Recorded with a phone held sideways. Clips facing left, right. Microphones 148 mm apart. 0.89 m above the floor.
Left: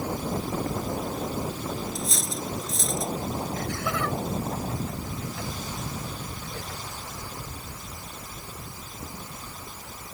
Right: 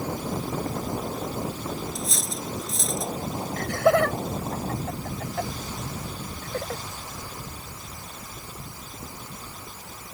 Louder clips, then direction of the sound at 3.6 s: Right 9 dB; 65° right (ahead or behind).